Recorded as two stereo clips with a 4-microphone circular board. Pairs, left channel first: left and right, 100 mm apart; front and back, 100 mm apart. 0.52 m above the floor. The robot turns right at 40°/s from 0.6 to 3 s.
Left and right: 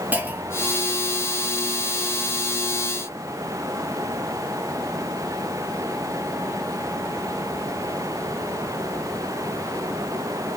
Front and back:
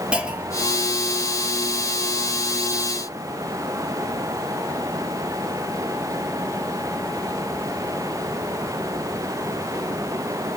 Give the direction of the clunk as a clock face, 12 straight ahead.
4 o'clock.